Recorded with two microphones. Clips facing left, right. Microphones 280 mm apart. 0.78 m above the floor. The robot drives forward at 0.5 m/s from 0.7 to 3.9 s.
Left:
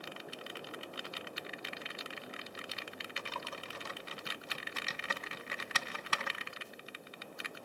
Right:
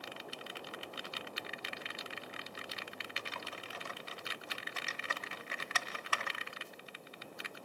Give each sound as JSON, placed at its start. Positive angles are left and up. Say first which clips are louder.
{"t": 3.2, "sound": "typing on a keyboard", "louder": "left 3 dB", "side_deg": 55, "distance_m": 0.9}